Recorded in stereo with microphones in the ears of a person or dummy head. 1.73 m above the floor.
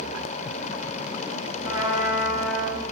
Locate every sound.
1.6 s a trumpet: 5° left (ahead or behind), 7 m